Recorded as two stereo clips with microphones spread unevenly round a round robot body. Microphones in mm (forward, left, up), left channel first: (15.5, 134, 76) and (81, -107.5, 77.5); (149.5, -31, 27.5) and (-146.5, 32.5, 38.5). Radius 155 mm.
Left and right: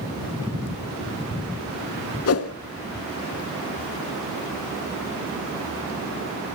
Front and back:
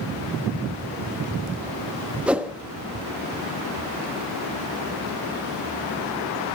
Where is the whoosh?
80° left, 1.2 m.